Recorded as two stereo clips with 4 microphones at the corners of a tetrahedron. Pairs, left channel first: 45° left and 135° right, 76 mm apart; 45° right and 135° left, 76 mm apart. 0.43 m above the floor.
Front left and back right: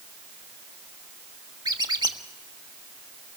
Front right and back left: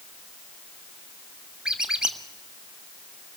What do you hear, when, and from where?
1.6 s a squeak: 145° right, 1.4 m